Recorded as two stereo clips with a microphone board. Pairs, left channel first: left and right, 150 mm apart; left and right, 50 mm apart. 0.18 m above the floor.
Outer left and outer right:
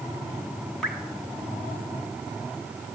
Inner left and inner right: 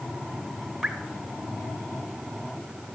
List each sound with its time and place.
0.8 s dripping: 5° left (ahead or behind), 1.6 m